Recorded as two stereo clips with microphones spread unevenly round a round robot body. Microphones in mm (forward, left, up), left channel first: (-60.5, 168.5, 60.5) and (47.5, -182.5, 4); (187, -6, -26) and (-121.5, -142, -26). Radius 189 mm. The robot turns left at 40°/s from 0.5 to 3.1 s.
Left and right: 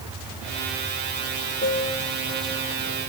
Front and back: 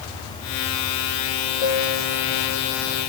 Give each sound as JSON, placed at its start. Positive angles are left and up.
{"t": 1.6, "sound": "a piano", "azimuth_deg": 45}